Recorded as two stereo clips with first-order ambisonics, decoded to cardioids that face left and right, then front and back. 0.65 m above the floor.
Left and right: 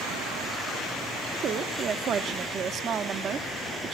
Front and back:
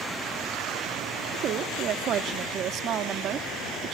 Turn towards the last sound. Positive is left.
turn(degrees=-140)